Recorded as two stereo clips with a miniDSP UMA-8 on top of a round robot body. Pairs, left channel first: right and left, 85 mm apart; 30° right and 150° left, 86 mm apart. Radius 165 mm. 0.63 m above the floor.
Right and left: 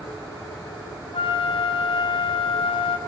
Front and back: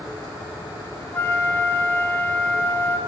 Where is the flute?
95° right, 0.6 m.